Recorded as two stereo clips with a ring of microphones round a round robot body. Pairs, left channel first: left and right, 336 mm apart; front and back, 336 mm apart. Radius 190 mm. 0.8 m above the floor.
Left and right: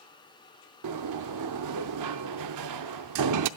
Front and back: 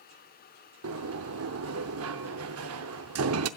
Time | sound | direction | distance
0.8 | a sliding door | 130° right | 0.6 m